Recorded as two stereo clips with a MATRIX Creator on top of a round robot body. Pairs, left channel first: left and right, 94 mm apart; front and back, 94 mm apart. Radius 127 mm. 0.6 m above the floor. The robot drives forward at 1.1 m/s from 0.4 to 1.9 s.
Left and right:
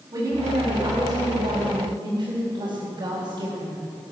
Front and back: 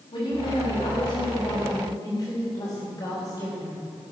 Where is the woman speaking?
35° right, 5 m; by 3.8 s 50° right, 4 m.